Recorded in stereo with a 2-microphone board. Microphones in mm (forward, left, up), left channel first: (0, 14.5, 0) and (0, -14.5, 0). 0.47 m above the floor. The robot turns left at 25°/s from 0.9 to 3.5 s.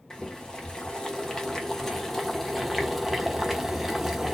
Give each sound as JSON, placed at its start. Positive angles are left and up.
{"t": 0.1, "sound": "boiling", "azimuth_deg": 55, "distance_m": 1.0}